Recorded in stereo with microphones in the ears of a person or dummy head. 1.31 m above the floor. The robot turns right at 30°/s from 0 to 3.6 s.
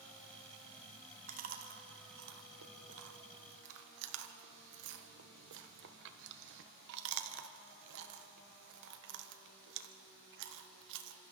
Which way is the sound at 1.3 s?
35° right (ahead or behind).